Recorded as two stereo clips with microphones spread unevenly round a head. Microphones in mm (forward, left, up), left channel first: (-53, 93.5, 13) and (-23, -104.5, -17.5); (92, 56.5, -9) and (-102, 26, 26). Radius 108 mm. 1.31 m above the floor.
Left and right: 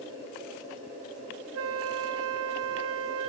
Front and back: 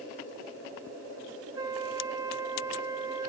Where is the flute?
95° right, 1.3 m.